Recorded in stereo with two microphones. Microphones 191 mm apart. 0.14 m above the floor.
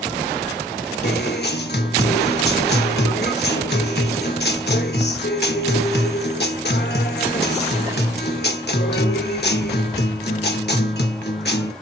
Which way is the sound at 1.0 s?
60° left (ahead or behind).